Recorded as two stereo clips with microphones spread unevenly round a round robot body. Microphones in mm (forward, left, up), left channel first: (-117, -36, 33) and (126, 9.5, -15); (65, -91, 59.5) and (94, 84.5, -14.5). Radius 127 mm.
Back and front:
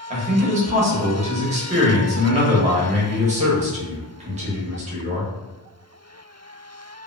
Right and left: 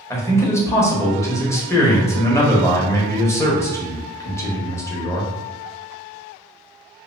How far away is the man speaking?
About 0.9 m.